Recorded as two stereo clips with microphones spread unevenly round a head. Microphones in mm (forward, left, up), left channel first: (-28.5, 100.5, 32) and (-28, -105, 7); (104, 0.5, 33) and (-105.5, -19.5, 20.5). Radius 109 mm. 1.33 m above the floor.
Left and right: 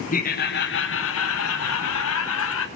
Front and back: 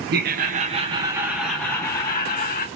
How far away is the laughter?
About 1.1 m.